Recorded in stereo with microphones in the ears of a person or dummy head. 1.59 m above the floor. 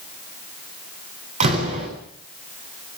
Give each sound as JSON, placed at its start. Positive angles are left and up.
{"t": 1.4, "sound": "a door slam", "side_deg": -40, "distance_m": 9.5}